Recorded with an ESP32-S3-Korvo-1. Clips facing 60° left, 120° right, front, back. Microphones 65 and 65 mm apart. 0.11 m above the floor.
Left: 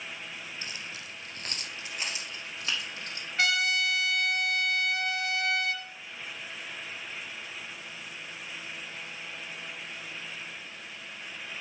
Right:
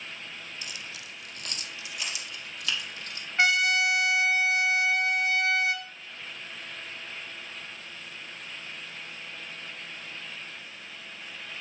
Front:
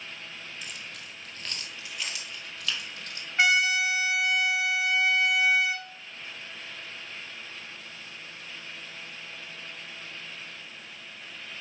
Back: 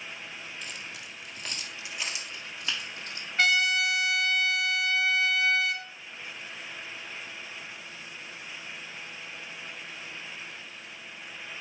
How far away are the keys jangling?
About 0.9 m.